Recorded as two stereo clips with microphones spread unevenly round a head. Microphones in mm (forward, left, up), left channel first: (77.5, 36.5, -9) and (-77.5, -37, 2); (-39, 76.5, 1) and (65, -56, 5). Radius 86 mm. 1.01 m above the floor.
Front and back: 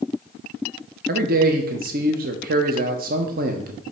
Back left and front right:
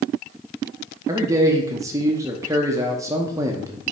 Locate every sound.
1.1 s a man speaking: 125° right, 0.7 m